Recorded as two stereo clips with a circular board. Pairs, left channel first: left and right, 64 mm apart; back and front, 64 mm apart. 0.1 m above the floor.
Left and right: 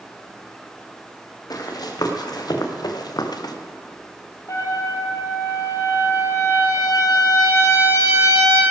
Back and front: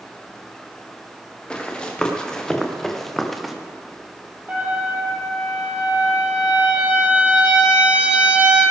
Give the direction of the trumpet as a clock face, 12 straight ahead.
10 o'clock.